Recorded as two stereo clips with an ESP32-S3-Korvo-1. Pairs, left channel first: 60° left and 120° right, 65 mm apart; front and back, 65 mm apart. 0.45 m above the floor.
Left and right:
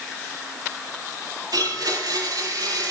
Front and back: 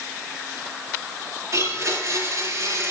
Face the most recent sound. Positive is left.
turn(degrees=-140)